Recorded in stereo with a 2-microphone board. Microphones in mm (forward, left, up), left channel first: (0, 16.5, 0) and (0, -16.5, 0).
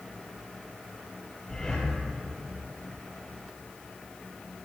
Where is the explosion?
No explosion in this recording.